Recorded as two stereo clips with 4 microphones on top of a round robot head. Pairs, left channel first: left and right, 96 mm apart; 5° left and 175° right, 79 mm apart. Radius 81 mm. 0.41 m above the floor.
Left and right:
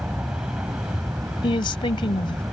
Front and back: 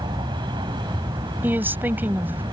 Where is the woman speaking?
125° left.